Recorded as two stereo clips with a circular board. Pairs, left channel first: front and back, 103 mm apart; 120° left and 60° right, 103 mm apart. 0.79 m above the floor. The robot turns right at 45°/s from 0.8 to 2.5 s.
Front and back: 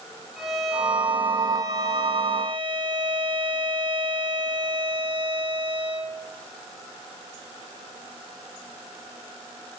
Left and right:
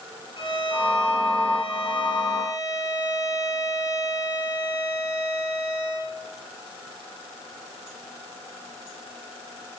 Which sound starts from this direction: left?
A violin, at 0.4 s.